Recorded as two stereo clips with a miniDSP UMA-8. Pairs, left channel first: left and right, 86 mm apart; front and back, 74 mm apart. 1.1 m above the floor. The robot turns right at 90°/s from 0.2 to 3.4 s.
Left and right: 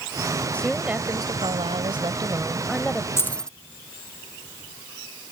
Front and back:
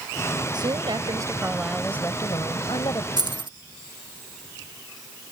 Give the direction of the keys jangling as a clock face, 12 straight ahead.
7 o'clock.